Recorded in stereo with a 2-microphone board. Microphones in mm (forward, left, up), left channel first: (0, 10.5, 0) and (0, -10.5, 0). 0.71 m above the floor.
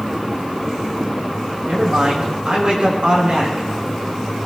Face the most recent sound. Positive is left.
turn(degrees=-55)  # may be behind; listen again after turning